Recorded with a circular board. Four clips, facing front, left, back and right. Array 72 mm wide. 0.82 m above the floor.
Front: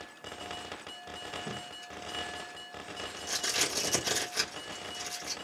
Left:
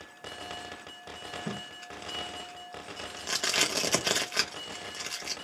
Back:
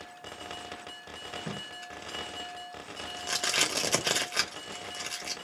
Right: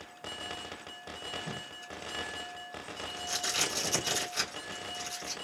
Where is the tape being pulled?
130° left, 1.1 m.